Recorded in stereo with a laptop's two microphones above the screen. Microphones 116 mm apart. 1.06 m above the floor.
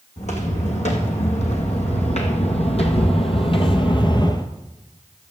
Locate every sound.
0.2 s footsteps: 70° left (ahead or behind), 3 m; by 4.5 s 35° left (ahead or behind), 1.2 m